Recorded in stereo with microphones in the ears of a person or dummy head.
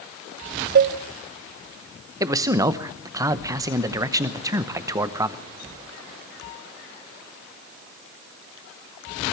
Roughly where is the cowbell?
Right.